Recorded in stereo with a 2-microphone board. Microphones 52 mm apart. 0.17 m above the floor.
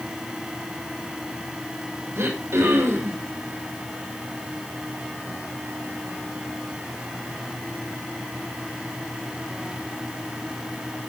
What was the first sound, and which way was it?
Throat clearing, 60° right (ahead or behind).